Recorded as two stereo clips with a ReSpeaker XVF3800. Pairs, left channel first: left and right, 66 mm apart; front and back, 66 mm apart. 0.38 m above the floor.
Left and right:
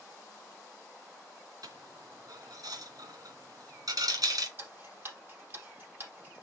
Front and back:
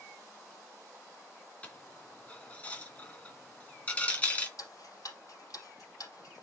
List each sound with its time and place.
1.6 s a dropped coin: 70° right, 2 m
4.6 s ticking: 35° right, 4.5 m